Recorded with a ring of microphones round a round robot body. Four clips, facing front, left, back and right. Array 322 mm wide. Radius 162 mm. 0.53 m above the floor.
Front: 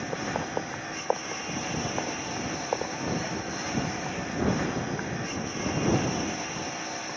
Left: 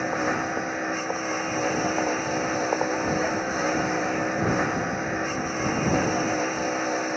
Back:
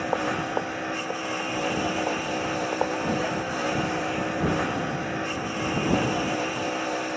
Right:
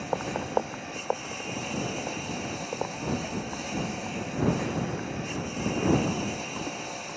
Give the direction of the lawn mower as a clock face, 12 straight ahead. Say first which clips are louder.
Left 5 dB, back 5 dB; 8 o'clock.